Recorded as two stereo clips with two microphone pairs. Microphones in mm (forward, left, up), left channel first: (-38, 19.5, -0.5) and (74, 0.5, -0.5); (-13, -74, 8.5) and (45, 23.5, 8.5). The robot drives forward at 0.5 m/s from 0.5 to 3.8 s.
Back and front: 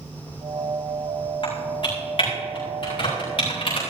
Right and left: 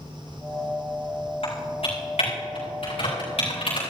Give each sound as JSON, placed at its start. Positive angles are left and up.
{"t": 1.4, "sound": "typing on a keyboard", "azimuth_deg": -145, "distance_m": 6.0}